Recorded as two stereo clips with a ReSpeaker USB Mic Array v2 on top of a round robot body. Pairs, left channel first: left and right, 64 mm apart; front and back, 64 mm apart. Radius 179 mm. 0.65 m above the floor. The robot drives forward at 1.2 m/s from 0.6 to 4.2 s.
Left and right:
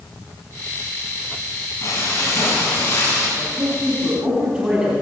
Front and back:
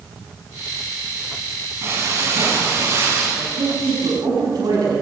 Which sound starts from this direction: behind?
A woman speaking, at 3.4 s.